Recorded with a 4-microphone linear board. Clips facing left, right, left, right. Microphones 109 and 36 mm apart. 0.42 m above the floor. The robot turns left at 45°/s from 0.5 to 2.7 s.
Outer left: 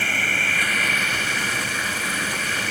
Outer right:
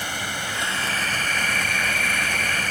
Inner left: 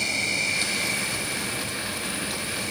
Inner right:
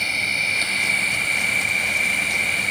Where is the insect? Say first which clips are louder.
Outer left 3 dB, inner right 4 dB; 20° right; by 2.7 s 120° right.